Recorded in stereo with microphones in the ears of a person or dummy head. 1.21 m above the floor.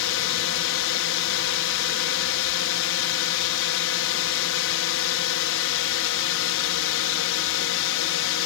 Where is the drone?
65° left (ahead or behind).